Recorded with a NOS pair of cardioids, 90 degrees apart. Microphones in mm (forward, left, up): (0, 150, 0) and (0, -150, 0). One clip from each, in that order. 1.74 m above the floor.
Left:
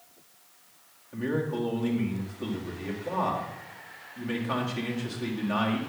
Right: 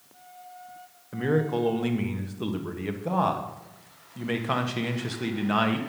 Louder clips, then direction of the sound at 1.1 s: Right 5 dB; 40° right.